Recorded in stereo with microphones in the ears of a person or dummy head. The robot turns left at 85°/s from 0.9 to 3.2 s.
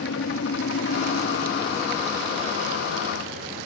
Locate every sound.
0.0 s a helicopter: 60° left (ahead or behind); by 3.7 s 60° right (ahead or behind)